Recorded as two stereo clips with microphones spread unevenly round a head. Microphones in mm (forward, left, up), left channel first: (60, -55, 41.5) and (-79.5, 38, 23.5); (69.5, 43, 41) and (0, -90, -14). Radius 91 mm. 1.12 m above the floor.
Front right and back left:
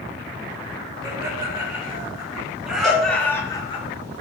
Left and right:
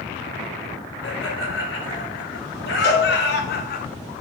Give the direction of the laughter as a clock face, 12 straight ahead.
9 o'clock.